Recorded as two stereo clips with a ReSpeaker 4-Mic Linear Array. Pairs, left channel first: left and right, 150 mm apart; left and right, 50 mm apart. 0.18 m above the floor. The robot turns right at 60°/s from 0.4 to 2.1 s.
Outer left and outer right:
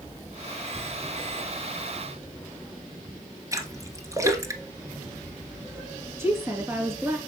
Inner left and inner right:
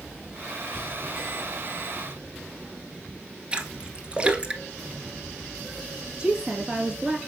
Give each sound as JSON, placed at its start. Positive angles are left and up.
{"t": 3.5, "sound": "a splash", "side_deg": -20, "distance_m": 1.1}
{"t": 6.2, "sound": "a woman speaking", "side_deg": -15, "distance_m": 3.0}